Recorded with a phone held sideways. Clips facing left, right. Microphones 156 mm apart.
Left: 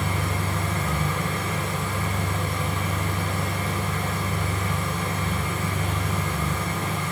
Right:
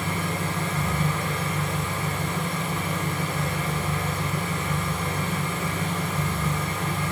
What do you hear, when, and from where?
0.0 s an engine running: centre (ahead or behind), 1.2 m